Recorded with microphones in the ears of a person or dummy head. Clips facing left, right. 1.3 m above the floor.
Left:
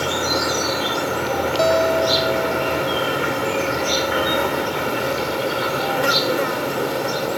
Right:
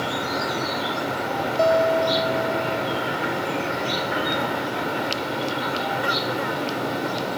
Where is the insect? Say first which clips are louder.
Left 4 dB; 55° left (ahead or behind).